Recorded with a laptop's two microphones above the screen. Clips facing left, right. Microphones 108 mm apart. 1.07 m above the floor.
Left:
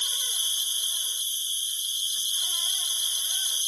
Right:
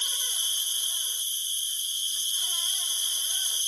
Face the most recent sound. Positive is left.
turn(degrees=15)  # may be behind; listen again after turning